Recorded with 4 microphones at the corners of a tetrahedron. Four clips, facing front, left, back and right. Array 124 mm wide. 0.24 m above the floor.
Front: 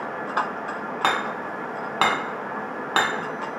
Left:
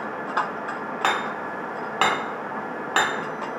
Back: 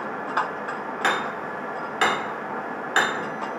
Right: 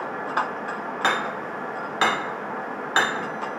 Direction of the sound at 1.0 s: 30° left.